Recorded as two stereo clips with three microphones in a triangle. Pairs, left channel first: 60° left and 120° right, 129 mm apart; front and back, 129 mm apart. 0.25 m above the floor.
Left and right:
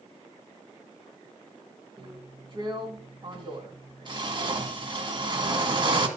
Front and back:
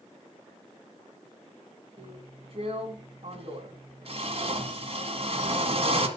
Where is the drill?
160° right, 2 m.